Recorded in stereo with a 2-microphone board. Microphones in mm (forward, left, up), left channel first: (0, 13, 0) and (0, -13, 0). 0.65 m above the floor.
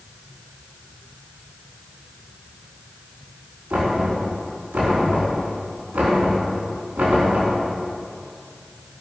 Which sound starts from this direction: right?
Knocking, at 3.7 s.